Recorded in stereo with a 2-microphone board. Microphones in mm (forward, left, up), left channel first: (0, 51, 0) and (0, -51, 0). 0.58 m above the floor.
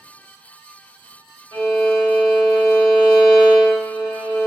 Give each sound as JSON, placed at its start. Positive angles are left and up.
{"t": 1.5, "sound": "a violin", "side_deg": 20, "distance_m": 1.4}